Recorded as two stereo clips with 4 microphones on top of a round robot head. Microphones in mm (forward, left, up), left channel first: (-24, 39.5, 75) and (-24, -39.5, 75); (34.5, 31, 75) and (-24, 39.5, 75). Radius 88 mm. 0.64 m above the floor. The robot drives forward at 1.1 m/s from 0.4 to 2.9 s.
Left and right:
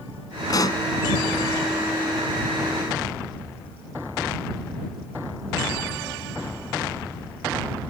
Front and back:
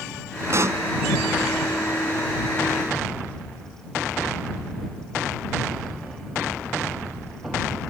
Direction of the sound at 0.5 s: 130° left.